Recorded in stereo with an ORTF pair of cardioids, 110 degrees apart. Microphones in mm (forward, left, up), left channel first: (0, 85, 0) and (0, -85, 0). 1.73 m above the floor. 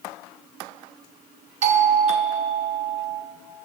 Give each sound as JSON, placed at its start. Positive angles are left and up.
{"t": 1.6, "sound": "a doorbell", "azimuth_deg": -45, "distance_m": 0.6}